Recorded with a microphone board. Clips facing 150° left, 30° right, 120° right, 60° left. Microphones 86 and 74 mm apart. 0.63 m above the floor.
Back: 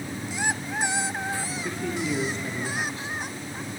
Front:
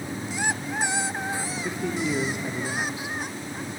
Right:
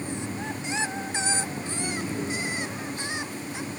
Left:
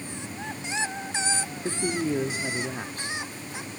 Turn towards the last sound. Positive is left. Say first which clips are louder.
# front 2 dB, left 4 dB
turn(degrees=45)